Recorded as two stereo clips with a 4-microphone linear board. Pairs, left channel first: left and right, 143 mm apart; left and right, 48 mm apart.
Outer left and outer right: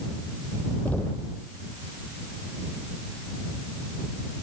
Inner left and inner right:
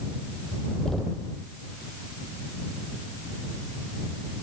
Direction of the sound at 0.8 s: 10° left (ahead or behind).